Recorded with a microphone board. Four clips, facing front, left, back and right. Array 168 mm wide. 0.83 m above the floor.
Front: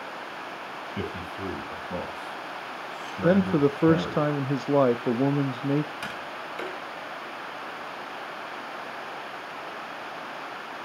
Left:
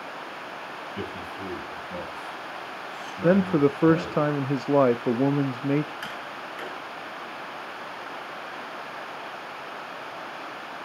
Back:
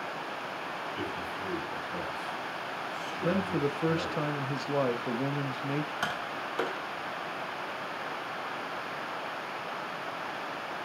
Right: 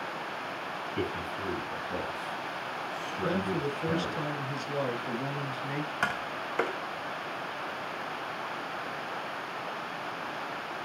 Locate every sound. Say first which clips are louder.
1.0 s a man speaking: right 2 dB, front 2 dB; 5° right, 5 m; by 4.2 s 10° left, 3.5 m
3.2 s a man speaking: left 11 dB, front 8 dB; 55° left, 0.7 m
6.0 s tapping: right 3 dB, back 1 dB; 115° right, 1.7 m